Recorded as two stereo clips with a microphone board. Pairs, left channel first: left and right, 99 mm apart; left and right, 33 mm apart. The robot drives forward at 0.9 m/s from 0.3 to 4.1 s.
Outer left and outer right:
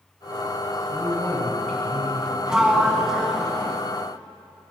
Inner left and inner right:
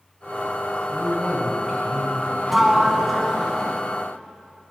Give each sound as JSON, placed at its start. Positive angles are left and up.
{"t": 0.9, "sound": "a man speaking", "side_deg": 10, "distance_m": 2.5}
{"t": 2.5, "sound": "a sliding door", "side_deg": -5, "distance_m": 0.6}